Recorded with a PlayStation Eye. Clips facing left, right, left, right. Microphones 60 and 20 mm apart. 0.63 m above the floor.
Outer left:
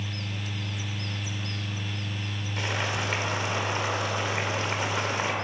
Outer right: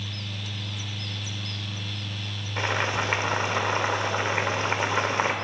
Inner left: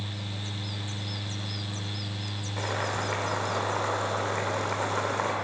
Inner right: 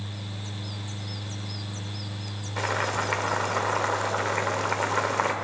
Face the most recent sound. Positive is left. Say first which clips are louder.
# outer right 4 dB, inner right 4 dB
turn(degrees=-30)  # may be behind; listen again after turning